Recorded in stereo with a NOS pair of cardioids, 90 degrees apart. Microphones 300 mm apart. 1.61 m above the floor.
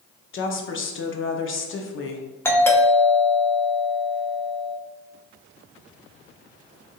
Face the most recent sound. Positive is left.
turn(degrees=10)